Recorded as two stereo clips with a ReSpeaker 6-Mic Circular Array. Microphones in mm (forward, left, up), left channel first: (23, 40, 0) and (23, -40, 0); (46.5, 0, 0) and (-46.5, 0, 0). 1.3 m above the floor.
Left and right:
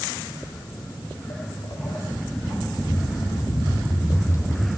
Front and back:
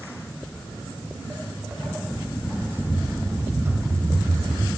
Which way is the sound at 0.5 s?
105° left.